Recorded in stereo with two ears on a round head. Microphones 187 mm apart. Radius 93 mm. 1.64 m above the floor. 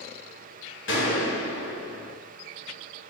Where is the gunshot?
65° left (ahead or behind), 1.8 m.